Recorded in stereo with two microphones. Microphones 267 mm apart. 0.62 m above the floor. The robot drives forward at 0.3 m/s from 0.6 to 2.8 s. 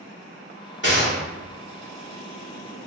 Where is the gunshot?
45° left (ahead or behind), 1.5 m.